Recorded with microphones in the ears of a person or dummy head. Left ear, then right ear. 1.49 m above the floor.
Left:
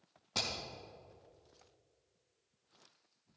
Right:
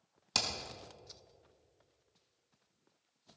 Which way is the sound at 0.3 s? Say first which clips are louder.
Right 3 dB; 65° right (ahead or behind).